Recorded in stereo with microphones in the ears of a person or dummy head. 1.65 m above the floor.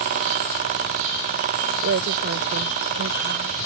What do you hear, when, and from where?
1.8 s a woman speaking: 65° right (ahead or behind)